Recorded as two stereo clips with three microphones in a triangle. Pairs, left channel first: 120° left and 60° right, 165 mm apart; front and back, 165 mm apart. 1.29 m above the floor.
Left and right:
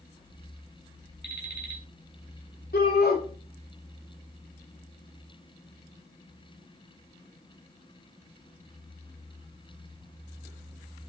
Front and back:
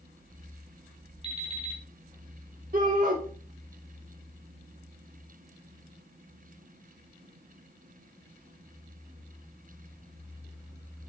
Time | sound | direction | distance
1.2 | an alarm clock | 125° left | 3.5 m
2.7 | a shout | 145° left | 2.5 m